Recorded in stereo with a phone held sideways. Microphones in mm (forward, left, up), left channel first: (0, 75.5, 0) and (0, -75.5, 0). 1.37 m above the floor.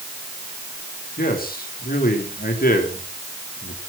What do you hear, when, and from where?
1.2 s a man speaking: 75° left (ahead or behind), 4 m